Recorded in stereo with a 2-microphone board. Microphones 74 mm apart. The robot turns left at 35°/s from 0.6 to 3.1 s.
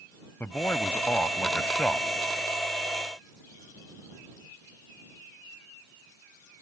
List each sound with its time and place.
0.4 s a man speaking: 25° left (ahead or behind); by 2.1 s 10° left (ahead or behind)